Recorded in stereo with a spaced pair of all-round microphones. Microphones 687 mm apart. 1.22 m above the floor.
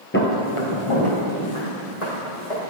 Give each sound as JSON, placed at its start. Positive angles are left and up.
{"t": 0.1, "sound": "footsteps", "side_deg": 15, "distance_m": 1.3}